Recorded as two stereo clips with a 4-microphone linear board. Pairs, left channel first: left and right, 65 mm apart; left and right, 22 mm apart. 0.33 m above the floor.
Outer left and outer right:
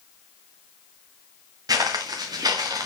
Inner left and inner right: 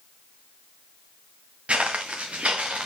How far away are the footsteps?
About 2 m.